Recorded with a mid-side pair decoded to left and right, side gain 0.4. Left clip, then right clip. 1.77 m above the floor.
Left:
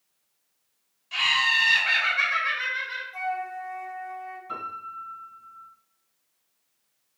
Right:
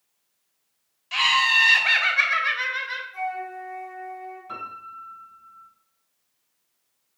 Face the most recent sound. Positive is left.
turn(degrees=-15)